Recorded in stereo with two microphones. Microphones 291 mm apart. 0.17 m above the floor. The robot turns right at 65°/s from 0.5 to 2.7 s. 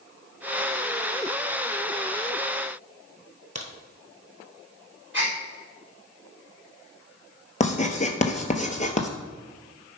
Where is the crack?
70° right (ahead or behind), 1.1 m.